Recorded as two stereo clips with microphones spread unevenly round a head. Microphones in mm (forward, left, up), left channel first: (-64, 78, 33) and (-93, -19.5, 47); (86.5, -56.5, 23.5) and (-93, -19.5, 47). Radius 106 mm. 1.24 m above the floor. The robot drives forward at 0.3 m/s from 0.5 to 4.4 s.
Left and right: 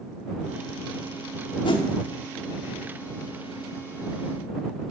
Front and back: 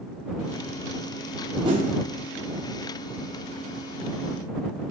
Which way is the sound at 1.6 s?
110° left.